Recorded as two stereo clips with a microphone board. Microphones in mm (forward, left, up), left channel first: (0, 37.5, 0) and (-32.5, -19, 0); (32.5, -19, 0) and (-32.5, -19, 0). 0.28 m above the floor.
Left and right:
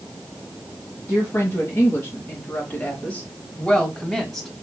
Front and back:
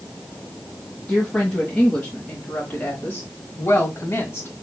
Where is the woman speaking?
80° left, 1.9 m; by 4.5 s 30° right, 1.8 m.